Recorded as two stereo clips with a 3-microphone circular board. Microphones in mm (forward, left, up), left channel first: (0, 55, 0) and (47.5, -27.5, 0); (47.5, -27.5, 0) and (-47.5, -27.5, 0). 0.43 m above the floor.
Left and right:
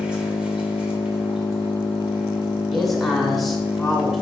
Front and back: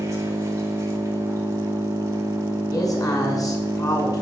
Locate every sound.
0.0 s an engine running: 135° right, 1.1 m
2.7 s a man speaking: 30° left, 1.8 m